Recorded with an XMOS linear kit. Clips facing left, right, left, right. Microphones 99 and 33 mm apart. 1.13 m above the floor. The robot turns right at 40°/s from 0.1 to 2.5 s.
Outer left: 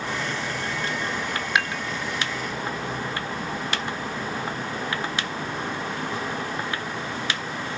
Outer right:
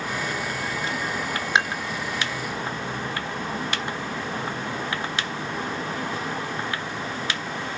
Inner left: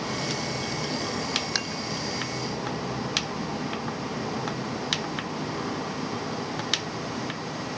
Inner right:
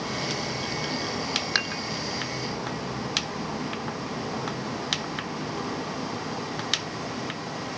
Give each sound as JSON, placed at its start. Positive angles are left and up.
{"t": 1.6, "sound": "dishes clattering", "side_deg": -25}